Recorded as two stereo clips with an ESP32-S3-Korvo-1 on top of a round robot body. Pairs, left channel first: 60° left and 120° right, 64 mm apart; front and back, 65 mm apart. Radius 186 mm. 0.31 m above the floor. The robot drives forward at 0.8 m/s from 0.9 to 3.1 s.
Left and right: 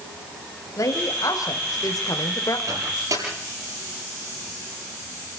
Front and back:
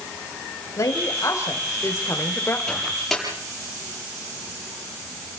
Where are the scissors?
I don't hear scissors.